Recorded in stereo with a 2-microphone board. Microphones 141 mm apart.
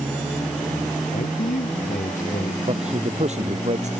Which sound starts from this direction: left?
A man speaking, at 1.1 s.